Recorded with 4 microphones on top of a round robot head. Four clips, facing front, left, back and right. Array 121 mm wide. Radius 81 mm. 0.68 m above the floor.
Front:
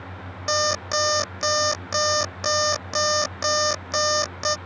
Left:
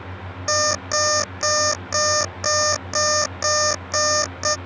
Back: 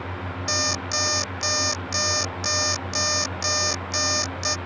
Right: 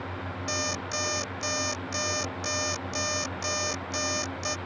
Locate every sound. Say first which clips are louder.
0.5 s an alarm clock: left 12 dB, front 6 dB; 55° left